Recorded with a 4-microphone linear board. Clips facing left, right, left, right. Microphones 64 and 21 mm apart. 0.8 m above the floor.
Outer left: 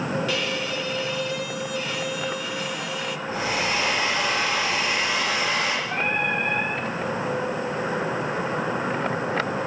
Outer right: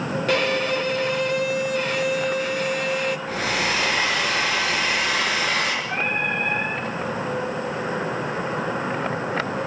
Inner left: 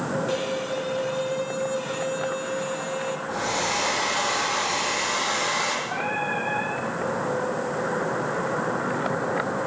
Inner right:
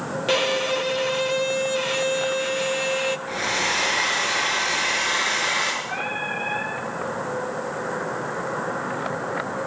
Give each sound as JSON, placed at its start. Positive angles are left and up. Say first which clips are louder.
{"t": 0.3, "sound": "a violin", "louder": "outer right 6 dB, inner right 5 dB", "side_deg": -55, "distance_m": 0.6}
{"t": 3.3, "sound": "a hair dryer", "louder": "outer right 1 dB, inner right 2 dB", "side_deg": -85, "distance_m": 4.5}
{"t": 5.8, "sound": "singing", "louder": "even, even", "side_deg": -50, "distance_m": 8.5}